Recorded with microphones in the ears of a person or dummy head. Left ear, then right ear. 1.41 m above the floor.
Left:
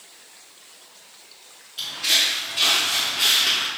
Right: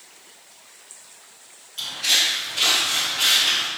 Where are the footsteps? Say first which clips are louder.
Even; 5° right (ahead or behind), 1.6 m; by 3.7 s 30° left (ahead or behind), 1.8 m.